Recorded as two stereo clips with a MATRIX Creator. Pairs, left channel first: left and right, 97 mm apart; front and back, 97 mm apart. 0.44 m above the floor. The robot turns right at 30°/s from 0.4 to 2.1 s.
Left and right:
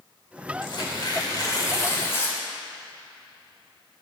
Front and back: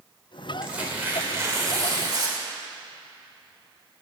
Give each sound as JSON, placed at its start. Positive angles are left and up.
{"t": 0.6, "sound": "tearing paper", "azimuth_deg": 105, "distance_m": 1.1}